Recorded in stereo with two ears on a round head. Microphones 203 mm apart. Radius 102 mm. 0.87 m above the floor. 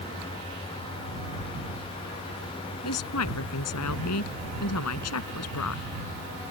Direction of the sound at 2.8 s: 80° left.